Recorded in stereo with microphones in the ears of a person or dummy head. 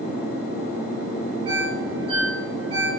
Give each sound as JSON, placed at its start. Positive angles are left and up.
{"t": 1.4, "sound": "a ringtone", "side_deg": -35, "distance_m": 2.5}